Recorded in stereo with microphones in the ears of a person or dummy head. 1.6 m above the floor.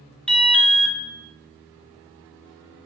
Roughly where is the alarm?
Centre.